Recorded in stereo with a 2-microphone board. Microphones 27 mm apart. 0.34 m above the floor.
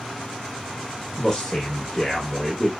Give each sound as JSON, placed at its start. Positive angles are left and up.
{"t": 1.2, "sound": "a man speaking", "side_deg": 20, "distance_m": 0.9}